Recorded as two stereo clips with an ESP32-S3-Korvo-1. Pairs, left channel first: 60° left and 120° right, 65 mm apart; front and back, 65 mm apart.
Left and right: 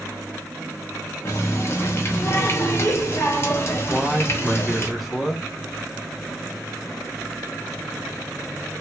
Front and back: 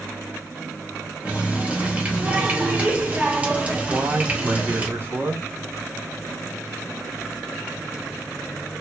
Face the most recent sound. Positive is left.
turn(degrees=155)